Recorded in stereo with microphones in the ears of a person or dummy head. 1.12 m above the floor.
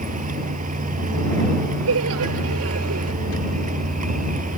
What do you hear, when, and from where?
0.0 s a vehicle: 35° right (ahead or behind)
1.9 s laughter: 80° right